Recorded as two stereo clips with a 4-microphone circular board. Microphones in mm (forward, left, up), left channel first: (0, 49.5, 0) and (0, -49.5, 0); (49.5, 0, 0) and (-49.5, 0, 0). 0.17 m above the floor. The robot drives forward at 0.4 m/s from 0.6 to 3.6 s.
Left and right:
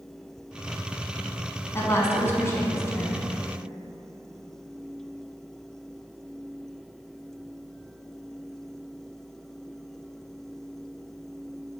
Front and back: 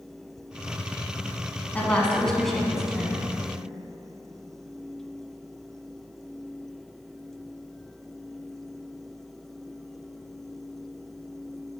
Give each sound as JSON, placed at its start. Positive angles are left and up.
{"t": 1.7, "sound": "a woman speaking", "azimuth_deg": 60, "distance_m": 1.2}